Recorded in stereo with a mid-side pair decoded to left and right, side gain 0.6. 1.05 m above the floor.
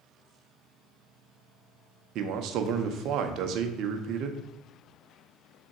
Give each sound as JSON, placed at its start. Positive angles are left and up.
{"t": 2.1, "sound": "a man speaking", "azimuth_deg": -60, "distance_m": 0.5}